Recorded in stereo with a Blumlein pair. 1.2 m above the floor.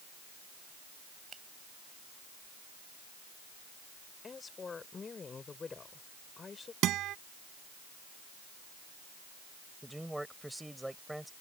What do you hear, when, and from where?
1.3 s a finger snap: 20° right
4.2 s a woman speaking: 15° left
6.8 s a guitar: 35° right
9.8 s a man speaking: straight ahead